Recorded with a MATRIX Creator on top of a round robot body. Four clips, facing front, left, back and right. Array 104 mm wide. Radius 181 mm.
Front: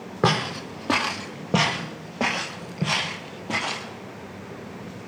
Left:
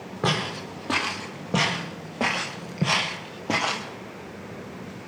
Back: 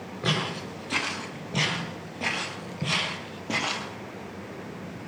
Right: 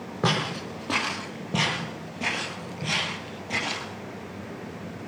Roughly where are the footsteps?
Ahead.